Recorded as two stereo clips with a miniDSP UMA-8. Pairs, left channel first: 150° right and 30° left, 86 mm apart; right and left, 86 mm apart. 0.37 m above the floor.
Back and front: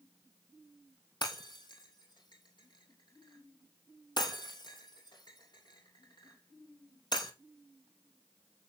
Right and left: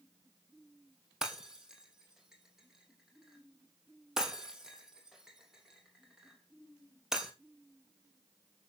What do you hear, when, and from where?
1.2 s breaking glass: 175° left, 3 m